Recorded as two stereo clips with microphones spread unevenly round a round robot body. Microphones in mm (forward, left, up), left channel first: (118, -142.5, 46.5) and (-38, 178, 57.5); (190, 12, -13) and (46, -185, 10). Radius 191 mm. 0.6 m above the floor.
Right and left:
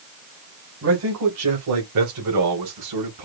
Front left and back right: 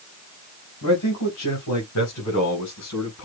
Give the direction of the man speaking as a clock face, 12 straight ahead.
10 o'clock.